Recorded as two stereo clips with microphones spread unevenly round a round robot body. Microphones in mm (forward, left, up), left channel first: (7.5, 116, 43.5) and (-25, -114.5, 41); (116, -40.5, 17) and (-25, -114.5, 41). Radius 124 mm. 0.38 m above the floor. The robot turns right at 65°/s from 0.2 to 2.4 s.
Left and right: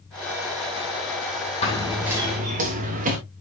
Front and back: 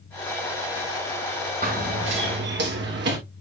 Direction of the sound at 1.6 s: 145° left.